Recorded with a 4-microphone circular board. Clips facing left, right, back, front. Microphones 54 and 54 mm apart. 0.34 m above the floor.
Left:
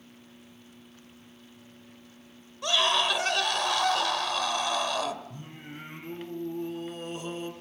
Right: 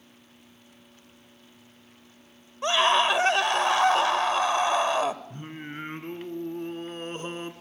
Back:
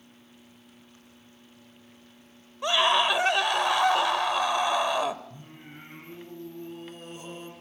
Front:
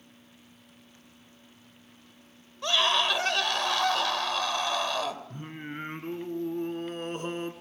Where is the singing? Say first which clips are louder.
Right 5 dB, front 8 dB; 40° right, 2 m.